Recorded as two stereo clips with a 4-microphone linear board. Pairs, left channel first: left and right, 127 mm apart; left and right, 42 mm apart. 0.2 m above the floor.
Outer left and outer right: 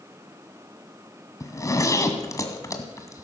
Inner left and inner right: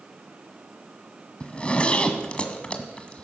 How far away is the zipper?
About 1.7 m.